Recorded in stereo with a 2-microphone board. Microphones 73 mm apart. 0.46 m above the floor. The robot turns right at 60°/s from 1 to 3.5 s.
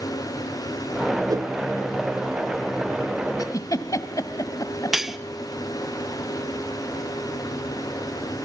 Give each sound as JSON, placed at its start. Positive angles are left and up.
{"t": 1.3, "sound": "a whoosh", "side_deg": -60, "distance_m": 0.5}
{"t": 3.4, "sound": "a giggle", "side_deg": 60, "distance_m": 1.7}
{"t": 4.9, "sound": "cutlery clinking", "side_deg": -5, "distance_m": 0.6}